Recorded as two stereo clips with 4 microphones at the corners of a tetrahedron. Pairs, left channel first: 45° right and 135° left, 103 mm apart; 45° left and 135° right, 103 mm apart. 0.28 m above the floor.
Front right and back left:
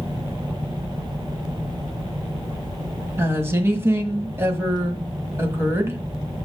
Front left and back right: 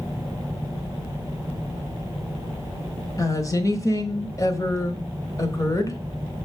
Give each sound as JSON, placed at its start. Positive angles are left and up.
{"t": 3.2, "sound": "a woman speaking", "azimuth_deg": 80, "distance_m": 1.5}